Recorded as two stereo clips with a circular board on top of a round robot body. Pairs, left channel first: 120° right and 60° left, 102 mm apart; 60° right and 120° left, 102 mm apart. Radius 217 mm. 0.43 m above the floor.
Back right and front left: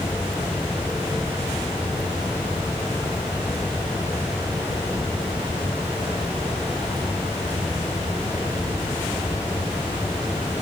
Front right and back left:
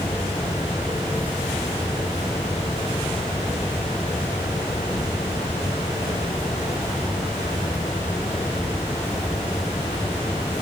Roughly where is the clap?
I don't hear a clap.